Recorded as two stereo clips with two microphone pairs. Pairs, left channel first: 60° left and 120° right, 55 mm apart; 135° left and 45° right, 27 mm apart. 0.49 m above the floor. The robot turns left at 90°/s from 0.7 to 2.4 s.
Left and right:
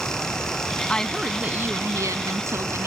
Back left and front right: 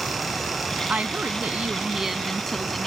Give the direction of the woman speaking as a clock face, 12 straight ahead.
12 o'clock.